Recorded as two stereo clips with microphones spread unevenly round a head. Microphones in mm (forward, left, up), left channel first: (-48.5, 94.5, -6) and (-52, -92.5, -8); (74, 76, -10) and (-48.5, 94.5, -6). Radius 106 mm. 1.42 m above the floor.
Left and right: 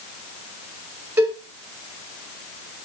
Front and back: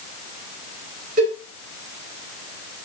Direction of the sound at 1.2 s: 170° right.